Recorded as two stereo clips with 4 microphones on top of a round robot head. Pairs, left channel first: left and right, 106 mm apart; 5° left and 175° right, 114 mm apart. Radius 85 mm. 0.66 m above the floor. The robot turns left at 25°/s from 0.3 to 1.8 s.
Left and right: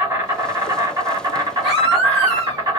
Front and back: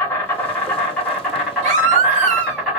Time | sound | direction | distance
0.0 | an insect | 50° right | 1.7 m
1.6 | a baby crying | straight behind | 0.9 m